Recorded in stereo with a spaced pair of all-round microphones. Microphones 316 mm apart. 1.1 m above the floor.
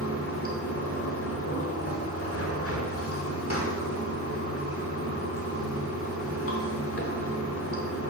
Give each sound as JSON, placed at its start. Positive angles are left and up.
{"t": 0.0, "sound": "running water", "side_deg": 45, "distance_m": 1.1}